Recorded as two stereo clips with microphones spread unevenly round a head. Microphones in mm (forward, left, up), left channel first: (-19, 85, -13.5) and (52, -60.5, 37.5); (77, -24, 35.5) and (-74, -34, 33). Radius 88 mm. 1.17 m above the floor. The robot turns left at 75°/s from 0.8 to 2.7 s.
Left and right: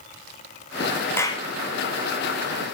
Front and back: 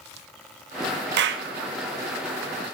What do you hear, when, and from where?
1.2 s a clap: 165° right, 0.7 m; by 1.5 s 170° left, 0.7 m